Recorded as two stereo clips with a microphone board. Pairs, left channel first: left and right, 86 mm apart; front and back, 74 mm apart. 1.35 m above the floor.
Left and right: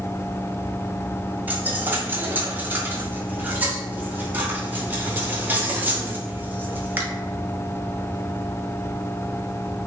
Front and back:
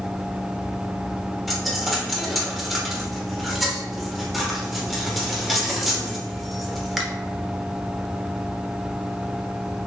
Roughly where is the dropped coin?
Right.